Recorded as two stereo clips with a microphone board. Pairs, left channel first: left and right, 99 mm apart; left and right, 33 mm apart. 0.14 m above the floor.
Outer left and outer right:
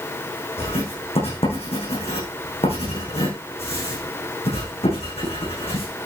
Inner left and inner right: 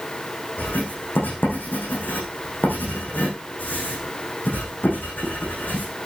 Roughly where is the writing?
Left.